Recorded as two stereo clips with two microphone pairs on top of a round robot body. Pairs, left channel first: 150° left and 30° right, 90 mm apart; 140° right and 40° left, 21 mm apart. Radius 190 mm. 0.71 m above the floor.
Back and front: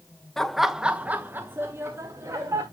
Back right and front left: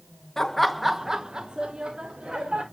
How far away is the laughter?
About 1.0 m.